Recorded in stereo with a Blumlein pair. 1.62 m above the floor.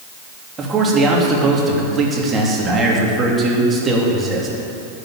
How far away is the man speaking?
About 3 m.